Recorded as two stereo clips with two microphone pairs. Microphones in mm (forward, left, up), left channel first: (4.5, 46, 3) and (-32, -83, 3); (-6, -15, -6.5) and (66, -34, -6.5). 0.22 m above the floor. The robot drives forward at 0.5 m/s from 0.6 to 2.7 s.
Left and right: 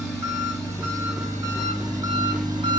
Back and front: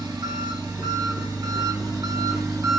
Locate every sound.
0.0 s an engine running: 40° right, 3.5 m; by 2.8 s 55° right, 3 m